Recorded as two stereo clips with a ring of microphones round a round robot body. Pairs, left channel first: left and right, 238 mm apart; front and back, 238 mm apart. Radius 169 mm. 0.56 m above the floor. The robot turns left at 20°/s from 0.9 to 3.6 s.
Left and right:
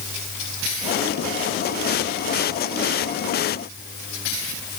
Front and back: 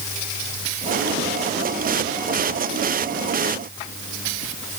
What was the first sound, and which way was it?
Only background noise.